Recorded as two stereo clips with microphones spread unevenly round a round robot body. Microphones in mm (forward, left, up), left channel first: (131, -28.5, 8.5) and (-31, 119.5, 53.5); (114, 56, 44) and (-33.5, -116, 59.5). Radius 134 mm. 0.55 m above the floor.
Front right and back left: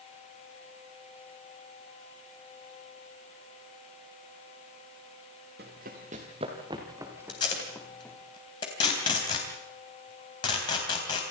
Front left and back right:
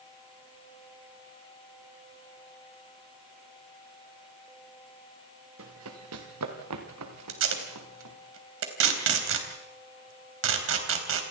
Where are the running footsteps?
170° right, 3.5 m; by 8.2 s 130° right, 4 m.